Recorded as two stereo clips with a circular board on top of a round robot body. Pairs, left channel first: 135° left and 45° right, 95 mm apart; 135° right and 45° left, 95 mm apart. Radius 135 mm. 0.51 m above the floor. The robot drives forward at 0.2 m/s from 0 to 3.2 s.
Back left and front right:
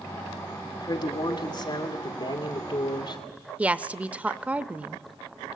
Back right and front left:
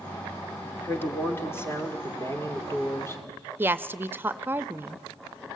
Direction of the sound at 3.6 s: 10° left.